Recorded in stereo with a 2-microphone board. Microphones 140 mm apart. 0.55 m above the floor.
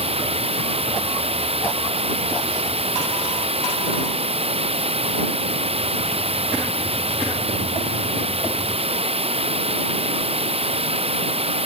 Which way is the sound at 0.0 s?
50° right (ahead or behind).